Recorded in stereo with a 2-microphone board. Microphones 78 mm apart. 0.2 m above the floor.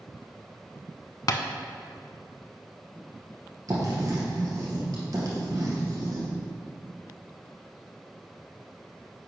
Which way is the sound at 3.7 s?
50° right (ahead or behind).